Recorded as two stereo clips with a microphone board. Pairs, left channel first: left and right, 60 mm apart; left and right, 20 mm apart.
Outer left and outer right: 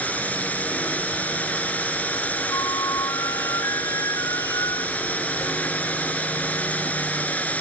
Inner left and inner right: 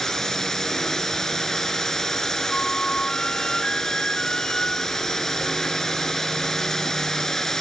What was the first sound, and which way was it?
A drone, 25° left (ahead or behind).